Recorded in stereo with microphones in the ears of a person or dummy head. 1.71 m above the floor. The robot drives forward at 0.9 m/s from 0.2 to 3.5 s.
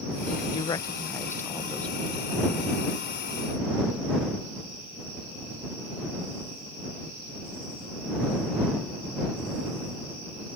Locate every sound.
0.5 s a woman speaking: 35° left (ahead or behind); by 3.1 s 5° left (ahead or behind)